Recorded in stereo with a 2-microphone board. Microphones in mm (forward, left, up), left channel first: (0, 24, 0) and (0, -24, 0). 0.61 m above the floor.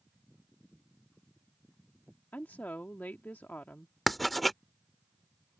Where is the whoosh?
No whoosh in this recording.